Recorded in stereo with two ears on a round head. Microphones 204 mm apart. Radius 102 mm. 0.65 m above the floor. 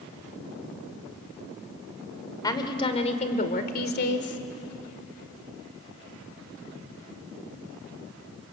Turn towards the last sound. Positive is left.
turn(degrees=55)  # may be behind; listen again after turning